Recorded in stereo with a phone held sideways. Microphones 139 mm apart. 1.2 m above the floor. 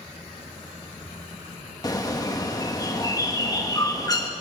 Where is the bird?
25° left (ahead or behind), 1.7 m.